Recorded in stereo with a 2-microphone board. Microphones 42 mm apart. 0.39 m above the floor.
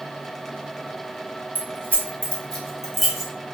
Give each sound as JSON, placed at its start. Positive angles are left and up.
{"t": 1.6, "sound": "keys jangling", "side_deg": 45, "distance_m": 0.9}